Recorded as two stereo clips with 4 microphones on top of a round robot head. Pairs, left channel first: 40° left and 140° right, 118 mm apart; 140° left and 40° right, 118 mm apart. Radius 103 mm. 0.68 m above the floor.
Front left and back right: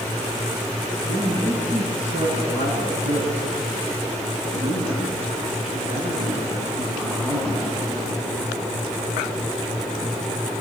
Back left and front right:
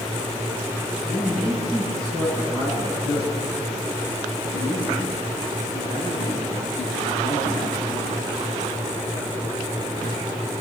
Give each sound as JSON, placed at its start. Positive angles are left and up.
{"t": 1.1, "sound": "a man speaking", "azimuth_deg": -160, "distance_m": 9.0}